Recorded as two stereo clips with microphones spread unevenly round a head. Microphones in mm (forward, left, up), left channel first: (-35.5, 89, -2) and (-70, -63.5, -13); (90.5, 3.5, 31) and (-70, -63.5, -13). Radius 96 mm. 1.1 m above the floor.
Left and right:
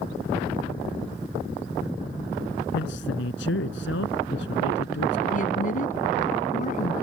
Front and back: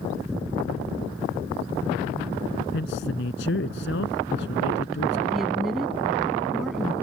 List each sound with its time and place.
2.7 s a man speaking: 55° left
5.3 s a woman speaking: 110° left